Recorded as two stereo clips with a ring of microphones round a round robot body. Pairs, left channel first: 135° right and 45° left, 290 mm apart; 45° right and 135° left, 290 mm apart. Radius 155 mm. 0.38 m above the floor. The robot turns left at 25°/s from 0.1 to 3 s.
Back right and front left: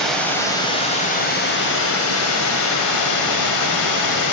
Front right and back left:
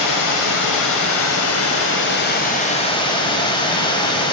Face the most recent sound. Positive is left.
turn(degrees=-120)